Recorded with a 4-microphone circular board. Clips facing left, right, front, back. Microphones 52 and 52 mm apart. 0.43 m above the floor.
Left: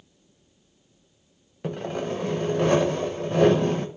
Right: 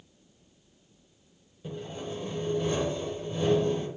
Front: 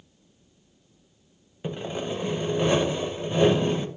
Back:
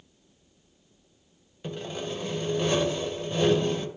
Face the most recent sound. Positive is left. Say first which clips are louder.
# left 8 dB, front 3 dB
turn(degrees=70)